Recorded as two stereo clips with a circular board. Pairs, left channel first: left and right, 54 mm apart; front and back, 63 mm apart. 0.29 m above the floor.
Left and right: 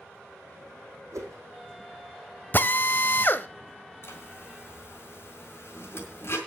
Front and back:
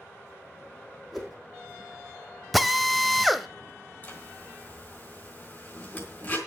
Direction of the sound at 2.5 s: 90° left.